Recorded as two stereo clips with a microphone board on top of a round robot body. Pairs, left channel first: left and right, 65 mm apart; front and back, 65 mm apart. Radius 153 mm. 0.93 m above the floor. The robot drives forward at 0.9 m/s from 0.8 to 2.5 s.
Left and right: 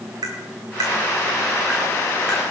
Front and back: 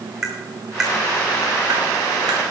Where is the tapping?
100° right, 0.5 m; by 2.4 s 170° right, 1.6 m.